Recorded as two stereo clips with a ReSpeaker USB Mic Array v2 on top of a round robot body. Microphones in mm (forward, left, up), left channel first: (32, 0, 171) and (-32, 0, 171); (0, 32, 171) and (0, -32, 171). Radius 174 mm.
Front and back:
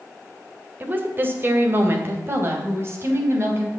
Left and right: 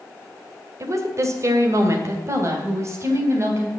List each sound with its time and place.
0.8 s a woman speaking: 120° right, 2 m; by 3.7 s 135° right, 3.5 m